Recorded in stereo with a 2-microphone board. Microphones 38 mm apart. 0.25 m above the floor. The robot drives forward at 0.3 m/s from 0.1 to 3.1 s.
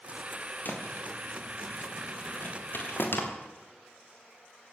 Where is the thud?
55° left (ahead or behind), 5 m; by 3.2 s 65° left (ahead or behind), 4.5 m.